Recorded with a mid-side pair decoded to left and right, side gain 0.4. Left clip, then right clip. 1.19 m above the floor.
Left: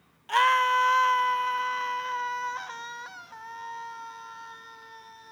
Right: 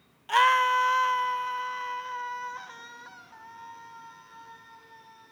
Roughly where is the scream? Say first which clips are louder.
Even; ahead.